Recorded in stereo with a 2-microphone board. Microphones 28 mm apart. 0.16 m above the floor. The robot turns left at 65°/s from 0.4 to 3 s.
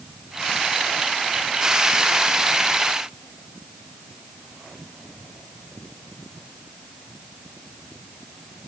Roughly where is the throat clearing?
No throat clearing in this recording.